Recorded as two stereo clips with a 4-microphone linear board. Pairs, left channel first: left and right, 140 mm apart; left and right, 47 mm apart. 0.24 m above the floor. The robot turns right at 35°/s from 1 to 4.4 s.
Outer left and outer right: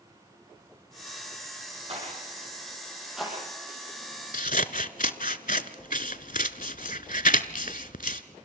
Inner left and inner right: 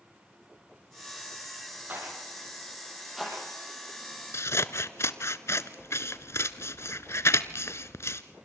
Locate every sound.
1.9 s a rattle: 45° right (ahead or behind), 8.5 m; by 3.3 s 5° left (ahead or behind), 8.5 m
4.3 s scissors: 80° left, 0.8 m